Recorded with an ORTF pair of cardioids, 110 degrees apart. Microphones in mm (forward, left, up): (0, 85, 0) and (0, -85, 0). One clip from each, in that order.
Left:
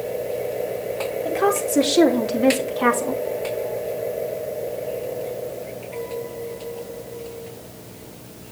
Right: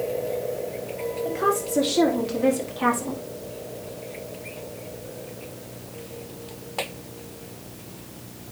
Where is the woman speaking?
30° left, 3.5 m; by 3.2 s 15° left, 2.5 m.